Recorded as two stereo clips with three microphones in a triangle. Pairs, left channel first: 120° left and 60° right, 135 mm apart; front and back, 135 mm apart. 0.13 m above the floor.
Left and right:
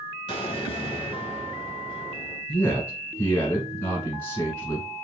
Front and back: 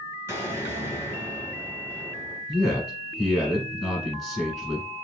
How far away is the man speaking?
About 1.4 m.